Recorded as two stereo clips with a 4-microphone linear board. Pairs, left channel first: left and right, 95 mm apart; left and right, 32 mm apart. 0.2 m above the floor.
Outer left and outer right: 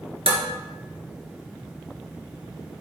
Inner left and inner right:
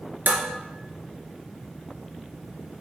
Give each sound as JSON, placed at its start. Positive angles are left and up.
{"t": 0.3, "sound": "dishes clattering", "side_deg": -65, "distance_m": 1.8}